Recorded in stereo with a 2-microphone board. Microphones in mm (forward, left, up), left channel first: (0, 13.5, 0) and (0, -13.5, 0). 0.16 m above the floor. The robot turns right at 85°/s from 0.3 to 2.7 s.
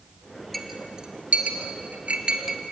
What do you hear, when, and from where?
0.5 s a clink: 5° left (ahead or behind), 2.5 m; by 2.6 s 10° right (ahead or behind), 2.5 m